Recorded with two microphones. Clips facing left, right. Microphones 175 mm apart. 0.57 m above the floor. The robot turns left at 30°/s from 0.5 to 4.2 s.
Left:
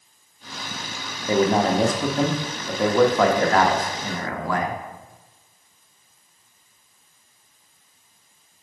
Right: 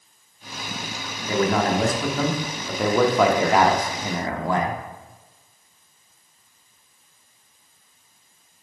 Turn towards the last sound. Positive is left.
turn(degrees=-40)